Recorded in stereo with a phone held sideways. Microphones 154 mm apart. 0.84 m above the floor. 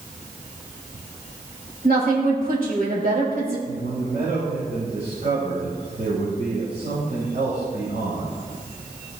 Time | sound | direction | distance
1.8 | a woman speaking | 70° right (ahead or behind) | 3.5 m
3.7 | a man speaking | 60° right (ahead or behind) | 4 m